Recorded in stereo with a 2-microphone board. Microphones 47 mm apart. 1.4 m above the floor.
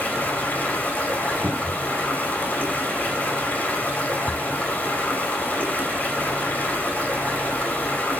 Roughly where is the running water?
Left.